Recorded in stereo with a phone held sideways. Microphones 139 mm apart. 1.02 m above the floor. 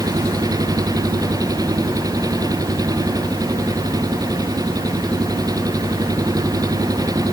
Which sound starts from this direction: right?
An engine running, at 0.0 s.